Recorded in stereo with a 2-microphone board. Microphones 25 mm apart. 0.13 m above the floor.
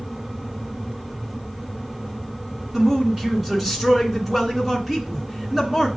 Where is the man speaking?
10° right (ahead or behind), 1.9 m.